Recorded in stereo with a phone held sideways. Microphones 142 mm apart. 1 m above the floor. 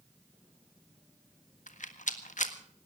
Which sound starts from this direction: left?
A rattle, at 1.7 s.